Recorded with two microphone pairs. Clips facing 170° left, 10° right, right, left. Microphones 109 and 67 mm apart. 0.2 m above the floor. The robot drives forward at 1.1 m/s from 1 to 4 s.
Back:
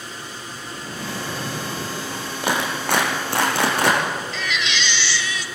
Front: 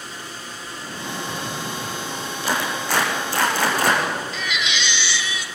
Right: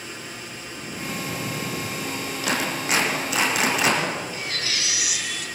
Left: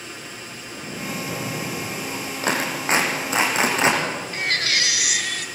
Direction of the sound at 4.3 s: 75° left.